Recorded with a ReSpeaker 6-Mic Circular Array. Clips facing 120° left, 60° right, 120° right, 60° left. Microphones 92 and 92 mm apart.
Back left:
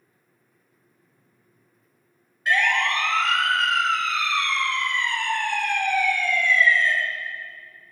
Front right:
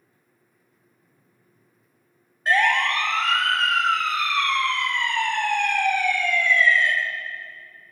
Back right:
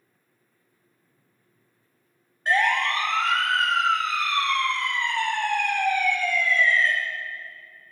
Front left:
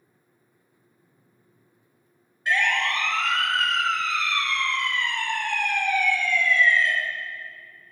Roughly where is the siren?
Right.